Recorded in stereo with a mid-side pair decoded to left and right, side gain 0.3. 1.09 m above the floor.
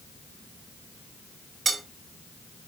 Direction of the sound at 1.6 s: 65° right.